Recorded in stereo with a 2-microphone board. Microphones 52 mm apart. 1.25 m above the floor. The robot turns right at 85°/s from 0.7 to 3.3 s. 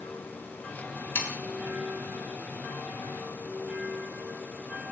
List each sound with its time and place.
1.1 s sawing: 55° left (ahead or behind), 1.4 m